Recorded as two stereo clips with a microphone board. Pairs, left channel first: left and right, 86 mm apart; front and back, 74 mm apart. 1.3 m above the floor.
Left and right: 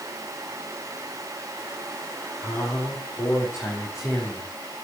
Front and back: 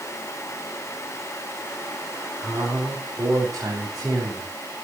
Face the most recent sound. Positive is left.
turn(degrees=140)